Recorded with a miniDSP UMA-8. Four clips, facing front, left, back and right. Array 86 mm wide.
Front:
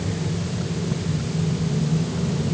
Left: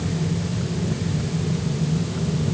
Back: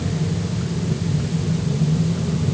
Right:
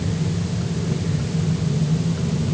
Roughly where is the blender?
I don't hear a blender.